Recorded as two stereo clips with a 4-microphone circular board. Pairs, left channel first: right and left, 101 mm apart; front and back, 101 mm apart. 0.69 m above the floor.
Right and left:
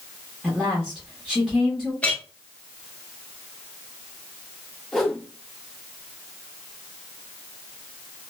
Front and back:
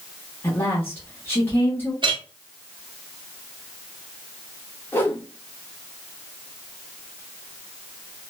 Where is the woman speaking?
15° left, 1.0 m.